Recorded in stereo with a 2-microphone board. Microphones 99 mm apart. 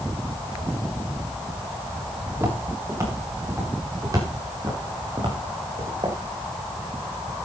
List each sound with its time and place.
2.3 s footsteps: 25° right (ahead or behind), 8.5 m; by 6.2 s 55° right (ahead or behind), 4.5 m